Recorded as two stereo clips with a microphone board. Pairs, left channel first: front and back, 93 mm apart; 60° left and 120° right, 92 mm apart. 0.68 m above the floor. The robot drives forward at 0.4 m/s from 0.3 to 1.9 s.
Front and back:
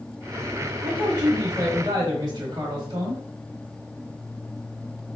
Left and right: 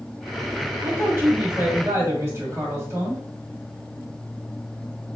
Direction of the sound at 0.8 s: 170° right.